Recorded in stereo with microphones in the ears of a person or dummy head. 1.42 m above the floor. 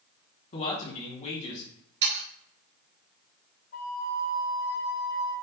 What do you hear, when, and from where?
0.5 s a man speaking: 35° left (ahead or behind), 1.2 m
2.0 s sawing: 65° right (ahead or behind), 1.8 m
3.7 s a flute: 45° left (ahead or behind), 0.5 m